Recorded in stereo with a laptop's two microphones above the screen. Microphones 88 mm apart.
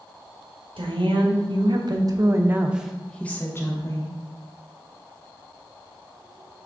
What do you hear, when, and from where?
0.8 s a woman speaking: 75° right (ahead or behind), 1.2 m; by 4.1 s 40° left (ahead or behind), 1.0 m